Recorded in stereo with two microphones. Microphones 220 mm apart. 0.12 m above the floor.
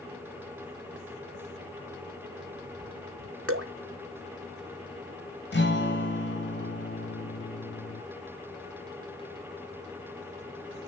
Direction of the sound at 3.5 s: 80° right.